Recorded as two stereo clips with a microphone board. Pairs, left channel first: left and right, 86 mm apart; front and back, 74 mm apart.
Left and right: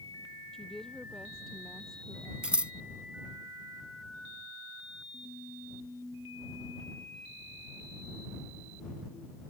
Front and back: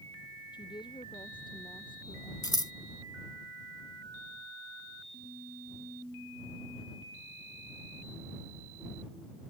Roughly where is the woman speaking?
Ahead.